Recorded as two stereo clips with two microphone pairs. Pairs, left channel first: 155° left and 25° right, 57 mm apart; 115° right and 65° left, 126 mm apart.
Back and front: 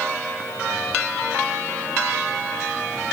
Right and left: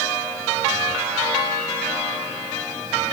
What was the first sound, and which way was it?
Only background noise.